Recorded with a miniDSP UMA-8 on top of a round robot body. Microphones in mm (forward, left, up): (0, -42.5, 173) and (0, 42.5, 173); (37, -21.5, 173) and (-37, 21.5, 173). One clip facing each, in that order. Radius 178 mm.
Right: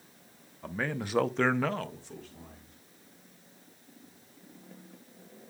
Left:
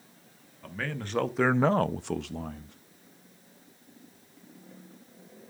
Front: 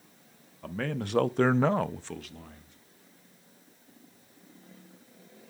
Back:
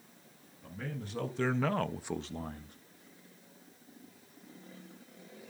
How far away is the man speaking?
About 1.2 m.